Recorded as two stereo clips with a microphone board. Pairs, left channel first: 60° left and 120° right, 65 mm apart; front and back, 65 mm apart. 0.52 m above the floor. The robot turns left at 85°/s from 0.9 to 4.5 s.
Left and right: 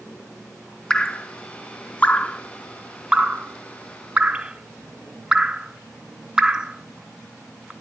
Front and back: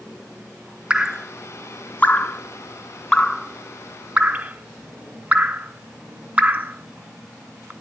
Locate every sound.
0.9 s dripping: 125° left, 0.7 m; by 7.7 s straight behind, 0.7 m